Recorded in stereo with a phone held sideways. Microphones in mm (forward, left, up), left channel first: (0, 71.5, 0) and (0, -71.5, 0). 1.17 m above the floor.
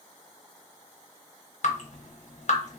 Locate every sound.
1.6 s dripping: 60° left (ahead or behind), 0.6 m